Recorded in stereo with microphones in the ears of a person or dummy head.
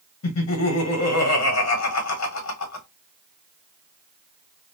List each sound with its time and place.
0.2 s laughter: 80° left, 1.3 m